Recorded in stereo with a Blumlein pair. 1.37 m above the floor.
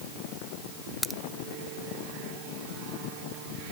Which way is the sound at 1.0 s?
5° right.